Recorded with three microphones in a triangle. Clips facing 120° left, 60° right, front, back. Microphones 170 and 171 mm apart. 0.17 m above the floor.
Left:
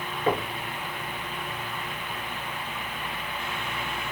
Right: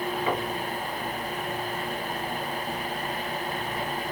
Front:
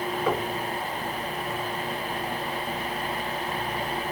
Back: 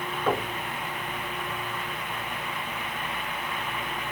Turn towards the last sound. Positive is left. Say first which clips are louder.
# left 5 dB, back 1 dB
turn(degrees=85)